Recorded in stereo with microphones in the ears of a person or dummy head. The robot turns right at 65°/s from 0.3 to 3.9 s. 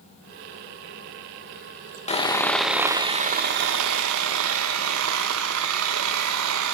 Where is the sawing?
145° left, 2.5 m; by 6.7 s 95° right, 2.5 m.